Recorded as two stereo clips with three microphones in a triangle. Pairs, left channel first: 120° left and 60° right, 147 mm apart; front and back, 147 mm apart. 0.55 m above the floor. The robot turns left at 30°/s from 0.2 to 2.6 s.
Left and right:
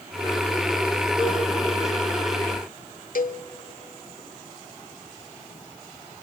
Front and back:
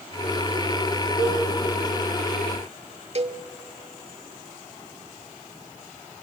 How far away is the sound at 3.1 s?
About 1.0 m.